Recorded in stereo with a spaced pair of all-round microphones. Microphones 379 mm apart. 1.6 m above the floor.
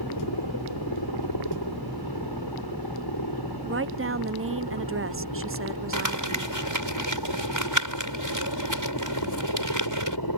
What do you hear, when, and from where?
0.0 s a helicopter: 80° left; by 10.4 s 70° left (ahead or behind)
3.6 s a woman speaking: 35° right (ahead or behind)
5.9 s crumpling: 55° right (ahead or behind)